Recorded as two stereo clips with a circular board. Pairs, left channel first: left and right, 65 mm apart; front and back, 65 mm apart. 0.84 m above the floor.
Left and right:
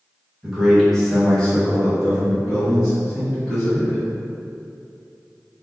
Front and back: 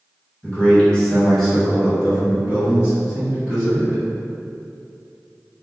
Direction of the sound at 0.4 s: 15° right.